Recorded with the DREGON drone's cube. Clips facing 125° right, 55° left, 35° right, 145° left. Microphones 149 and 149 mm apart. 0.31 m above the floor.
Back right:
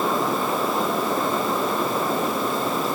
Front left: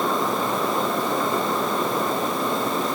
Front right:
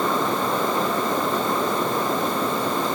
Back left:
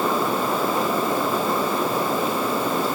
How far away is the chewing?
No chewing in this recording.